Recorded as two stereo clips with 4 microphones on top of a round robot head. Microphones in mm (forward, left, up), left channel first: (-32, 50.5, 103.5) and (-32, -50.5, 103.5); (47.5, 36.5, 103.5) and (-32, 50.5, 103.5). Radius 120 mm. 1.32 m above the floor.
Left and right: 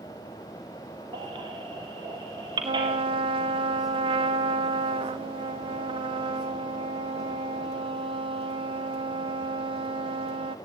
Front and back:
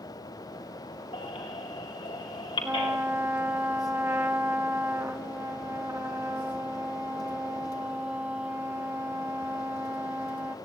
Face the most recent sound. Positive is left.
turn(degrees=-115)